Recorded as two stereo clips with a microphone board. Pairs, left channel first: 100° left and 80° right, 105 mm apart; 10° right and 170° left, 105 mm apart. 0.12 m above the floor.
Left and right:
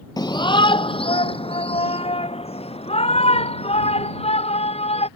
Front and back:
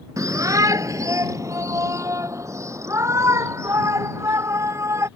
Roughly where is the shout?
Behind left.